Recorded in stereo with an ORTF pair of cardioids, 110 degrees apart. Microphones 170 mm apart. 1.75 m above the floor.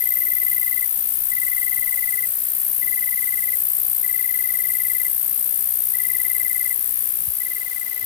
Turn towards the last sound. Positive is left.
turn(degrees=50)